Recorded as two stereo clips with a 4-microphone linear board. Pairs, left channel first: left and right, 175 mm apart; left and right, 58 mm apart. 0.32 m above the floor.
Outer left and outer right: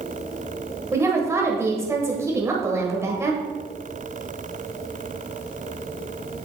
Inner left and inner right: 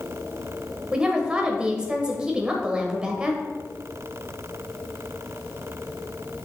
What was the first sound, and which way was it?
A woman speaking, 15° right (ahead or behind).